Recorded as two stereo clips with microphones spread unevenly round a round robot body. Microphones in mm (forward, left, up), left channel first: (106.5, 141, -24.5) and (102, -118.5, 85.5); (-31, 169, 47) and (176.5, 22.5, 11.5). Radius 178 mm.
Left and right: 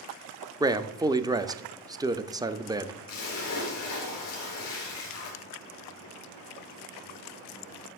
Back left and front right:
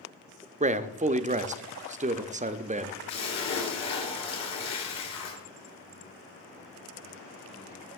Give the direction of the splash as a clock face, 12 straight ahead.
7 o'clock.